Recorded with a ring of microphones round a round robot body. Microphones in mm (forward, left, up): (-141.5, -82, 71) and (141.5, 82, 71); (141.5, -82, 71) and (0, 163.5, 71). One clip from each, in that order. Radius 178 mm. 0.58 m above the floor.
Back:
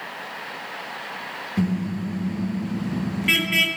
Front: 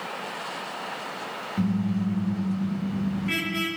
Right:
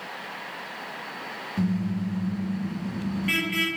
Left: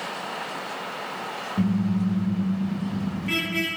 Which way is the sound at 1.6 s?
115° right.